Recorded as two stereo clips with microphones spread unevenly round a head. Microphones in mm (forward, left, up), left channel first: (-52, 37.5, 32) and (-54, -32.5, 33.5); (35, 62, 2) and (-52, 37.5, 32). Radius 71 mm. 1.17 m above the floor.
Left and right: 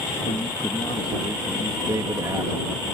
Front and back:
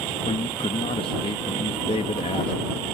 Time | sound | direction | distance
0.2 | a man speaking | 45° left | ?
1.9 | a man speaking | 30° right | ?